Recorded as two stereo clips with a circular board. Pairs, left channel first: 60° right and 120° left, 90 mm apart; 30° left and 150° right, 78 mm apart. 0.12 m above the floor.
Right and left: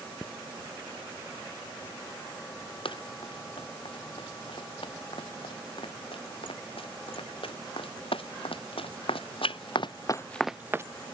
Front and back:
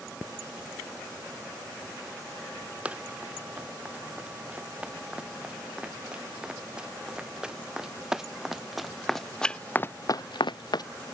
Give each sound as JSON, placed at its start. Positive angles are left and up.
{"t": 2.9, "sound": "running footsteps", "azimuth_deg": -75}